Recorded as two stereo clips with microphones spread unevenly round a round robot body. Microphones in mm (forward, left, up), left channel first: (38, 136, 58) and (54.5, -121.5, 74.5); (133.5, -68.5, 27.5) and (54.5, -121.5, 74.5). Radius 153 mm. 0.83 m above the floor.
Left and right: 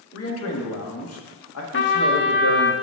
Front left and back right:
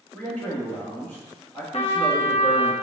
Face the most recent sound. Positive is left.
turn(degrees=45)